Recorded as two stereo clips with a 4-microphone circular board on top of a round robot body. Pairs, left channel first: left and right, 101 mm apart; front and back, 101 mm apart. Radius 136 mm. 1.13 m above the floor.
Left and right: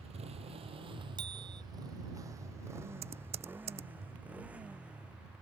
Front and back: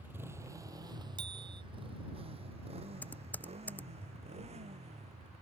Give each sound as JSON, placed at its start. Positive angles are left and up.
{"t": 0.0, "sound": "a motorcycle", "azimuth_deg": -105}
{"t": 1.2, "sound": "a bicycle bell", "azimuth_deg": -135}
{"t": 3.0, "sound": "typing on a keyboard", "azimuth_deg": -75}